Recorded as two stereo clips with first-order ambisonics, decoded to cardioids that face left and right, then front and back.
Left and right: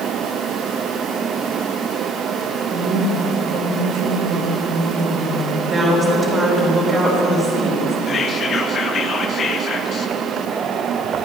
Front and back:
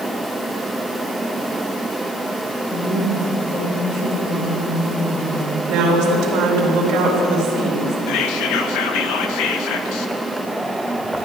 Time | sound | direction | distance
2.7 | a woman speaking | 65° right | 3.5 m
5.7 | a woman speaking | 155° right | 3.5 m
8.1 | whispering | 25° left | 0.7 m